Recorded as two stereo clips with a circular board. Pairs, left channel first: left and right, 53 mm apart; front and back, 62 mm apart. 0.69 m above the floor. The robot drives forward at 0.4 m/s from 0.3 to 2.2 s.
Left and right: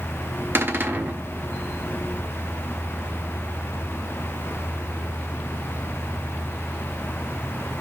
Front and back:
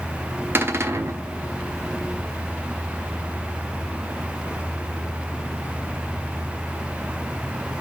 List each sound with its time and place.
0.6 s a cupboard door: 130° right, 0.8 m; by 1.2 s 140° right, 1.0 m